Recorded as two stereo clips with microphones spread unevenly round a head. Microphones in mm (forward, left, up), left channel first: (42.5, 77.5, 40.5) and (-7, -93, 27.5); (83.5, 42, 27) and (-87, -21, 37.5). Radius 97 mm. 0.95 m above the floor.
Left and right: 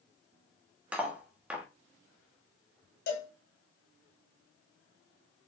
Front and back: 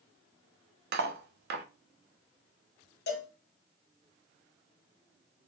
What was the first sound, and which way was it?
Cutlery clinking, 170° left.